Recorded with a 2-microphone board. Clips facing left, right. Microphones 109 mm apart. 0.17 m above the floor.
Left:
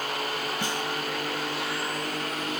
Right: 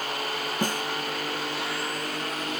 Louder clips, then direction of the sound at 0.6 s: Right 6 dB; 45° right (ahead or behind).